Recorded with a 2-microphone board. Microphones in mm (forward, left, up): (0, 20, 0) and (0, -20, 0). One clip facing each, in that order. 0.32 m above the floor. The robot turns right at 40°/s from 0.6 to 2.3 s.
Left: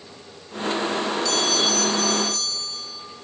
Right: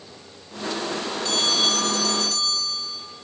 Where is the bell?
140° right, 3 m; by 3.0 s 95° right, 3 m.